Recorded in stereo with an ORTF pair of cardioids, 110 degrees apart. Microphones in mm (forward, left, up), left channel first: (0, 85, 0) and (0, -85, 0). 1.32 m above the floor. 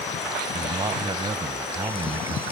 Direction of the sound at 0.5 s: 30° right.